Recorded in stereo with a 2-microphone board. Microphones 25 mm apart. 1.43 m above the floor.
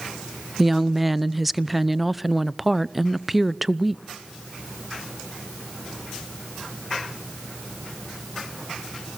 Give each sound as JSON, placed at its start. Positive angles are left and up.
{"t": 0.6, "sound": "a woman speaking", "side_deg": -5, "distance_m": 0.6}